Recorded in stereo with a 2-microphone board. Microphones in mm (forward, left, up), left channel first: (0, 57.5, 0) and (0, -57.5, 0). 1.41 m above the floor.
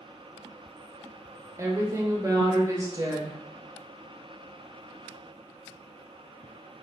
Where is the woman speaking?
30° right (ahead or behind), 0.7 m.